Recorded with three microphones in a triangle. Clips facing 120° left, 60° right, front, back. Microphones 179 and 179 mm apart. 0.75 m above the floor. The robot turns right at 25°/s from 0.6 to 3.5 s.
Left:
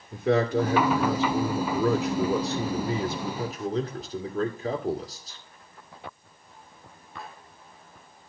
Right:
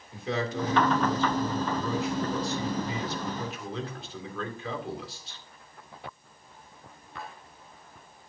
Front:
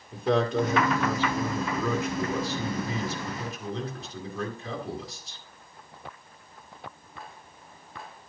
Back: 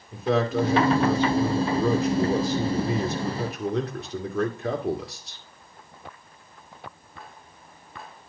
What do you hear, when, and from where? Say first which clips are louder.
0.1 s a man speaking: left 8 dB, back 1 dB; 95° left, 2 m; by 5.4 s 165° left, 2 m